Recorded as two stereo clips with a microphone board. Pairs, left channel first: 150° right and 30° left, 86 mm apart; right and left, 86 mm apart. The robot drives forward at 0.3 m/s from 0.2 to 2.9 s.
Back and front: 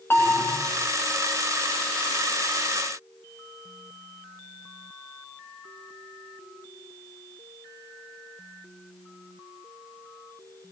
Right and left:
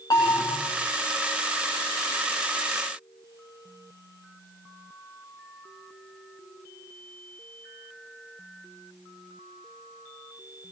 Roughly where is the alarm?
Right.